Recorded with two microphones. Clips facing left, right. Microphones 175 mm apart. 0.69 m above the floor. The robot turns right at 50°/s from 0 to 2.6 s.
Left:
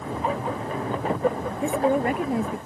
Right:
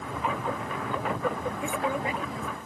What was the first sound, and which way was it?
A woman speaking, 30° left.